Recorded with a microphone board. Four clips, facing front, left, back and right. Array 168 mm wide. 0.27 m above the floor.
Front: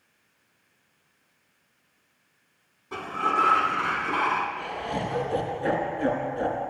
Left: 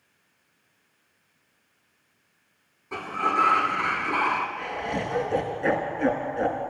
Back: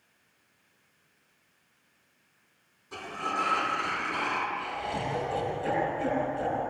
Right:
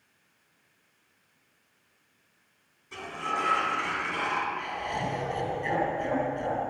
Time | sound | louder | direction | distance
2.9 | a sliding door | left 7 dB, front 7 dB | 50° left | 2.5 m
4.6 | laughter | left 2 dB, front 2 dB | 60° left | 4 m